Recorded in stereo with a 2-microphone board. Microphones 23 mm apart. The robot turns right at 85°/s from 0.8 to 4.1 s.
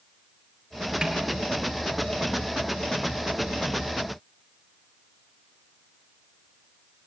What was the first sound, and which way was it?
A snare drum, 30° right (ahead or behind).